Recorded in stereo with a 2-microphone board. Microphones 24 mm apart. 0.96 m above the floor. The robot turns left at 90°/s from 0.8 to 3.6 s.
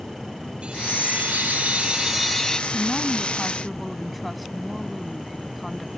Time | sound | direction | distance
0.6 | a chime | 45° right | ?
2.7 | a woman speaking | 80° left | ?